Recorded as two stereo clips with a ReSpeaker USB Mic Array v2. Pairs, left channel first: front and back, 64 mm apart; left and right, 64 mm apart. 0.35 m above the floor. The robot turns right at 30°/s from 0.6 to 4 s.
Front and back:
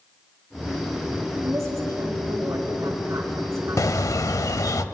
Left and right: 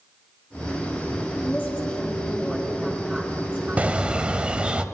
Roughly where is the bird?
Ahead right.